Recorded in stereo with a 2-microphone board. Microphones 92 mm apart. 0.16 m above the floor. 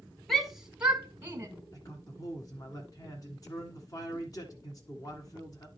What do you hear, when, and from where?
0.3 s a shout: centre (ahead or behind), 1.3 m; by 1.5 s 25° right (ahead or behind), 1.4 m
1.7 s a man speaking: 40° left (ahead or behind), 1.5 m